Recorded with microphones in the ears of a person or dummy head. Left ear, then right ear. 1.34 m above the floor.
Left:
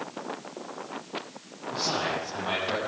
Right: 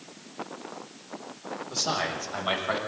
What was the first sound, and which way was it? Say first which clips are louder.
A man speaking: even; 65° right (ahead or behind).